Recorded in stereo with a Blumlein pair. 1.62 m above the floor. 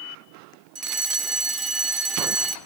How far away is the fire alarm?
About 1.8 m.